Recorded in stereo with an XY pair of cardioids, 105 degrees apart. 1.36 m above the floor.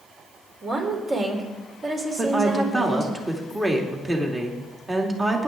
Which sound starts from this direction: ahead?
A woman speaking, at 2.2 s.